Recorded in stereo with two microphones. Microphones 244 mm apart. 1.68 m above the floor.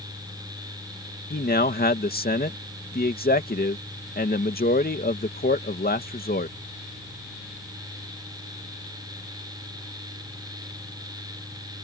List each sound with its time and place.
1.3 s a man speaking: 40° left (ahead or behind)